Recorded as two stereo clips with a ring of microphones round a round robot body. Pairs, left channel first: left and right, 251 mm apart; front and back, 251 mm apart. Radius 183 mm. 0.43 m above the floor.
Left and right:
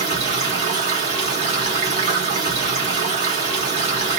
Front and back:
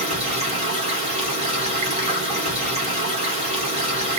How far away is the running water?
About 1.1 m.